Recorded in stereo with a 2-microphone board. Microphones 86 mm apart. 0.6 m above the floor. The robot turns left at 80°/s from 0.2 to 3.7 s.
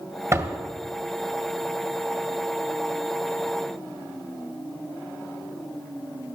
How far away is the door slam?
About 1.9 m.